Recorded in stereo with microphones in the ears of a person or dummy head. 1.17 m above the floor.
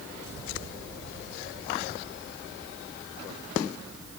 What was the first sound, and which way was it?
Only background noise.